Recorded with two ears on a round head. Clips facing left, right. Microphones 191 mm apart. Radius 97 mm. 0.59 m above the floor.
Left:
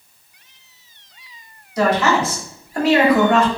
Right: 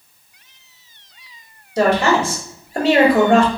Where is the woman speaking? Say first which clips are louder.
Right 2 dB; 25° right (ahead or behind), 1.3 m.